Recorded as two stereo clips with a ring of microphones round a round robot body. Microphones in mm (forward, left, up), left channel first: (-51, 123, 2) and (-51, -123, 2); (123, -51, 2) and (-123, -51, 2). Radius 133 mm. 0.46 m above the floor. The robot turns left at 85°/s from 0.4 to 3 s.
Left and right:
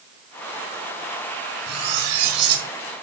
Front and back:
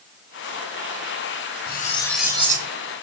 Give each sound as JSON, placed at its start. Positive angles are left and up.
{"t": 1.7, "sound": "cutlery clinking", "azimuth_deg": -45, "distance_m": 3.0}